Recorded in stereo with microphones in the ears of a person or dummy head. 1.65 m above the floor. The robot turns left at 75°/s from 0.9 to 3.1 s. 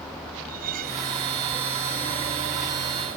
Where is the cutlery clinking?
50° right (ahead or behind); by 1.1 s 65° right (ahead or behind).